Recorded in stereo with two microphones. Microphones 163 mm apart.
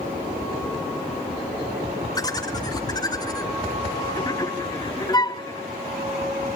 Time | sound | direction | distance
2.1 | laughter | 25° left (ahead or behind) | 1.7 m
5.1 | a flute | 25° left (ahead or behind) | 0.5 m